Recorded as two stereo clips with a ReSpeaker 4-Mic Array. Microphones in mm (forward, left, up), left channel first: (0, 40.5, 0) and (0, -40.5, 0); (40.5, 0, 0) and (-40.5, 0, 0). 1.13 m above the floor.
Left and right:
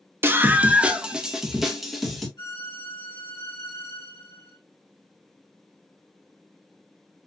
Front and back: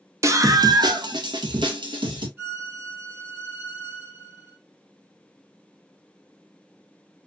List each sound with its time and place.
0.2 s a scream: 140° right, 0.9 m; by 2.3 s straight behind, 2 m
2.4 s a violin: 120° left, 2.5 m